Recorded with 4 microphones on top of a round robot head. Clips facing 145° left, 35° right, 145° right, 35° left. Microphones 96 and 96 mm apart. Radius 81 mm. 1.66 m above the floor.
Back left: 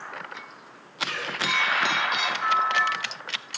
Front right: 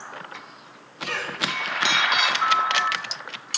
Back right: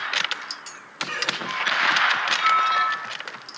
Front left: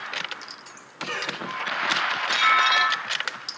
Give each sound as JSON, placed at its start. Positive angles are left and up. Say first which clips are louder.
{"t": 1.0, "sound": "a cough", "louder": "front right 2 dB, back right 1 dB", "azimuth_deg": 10, "distance_m": 5.0}
{"t": 2.4, "sound": "a bell", "louder": "back left 1 dB, even", "azimuth_deg": 15, "distance_m": 4.5}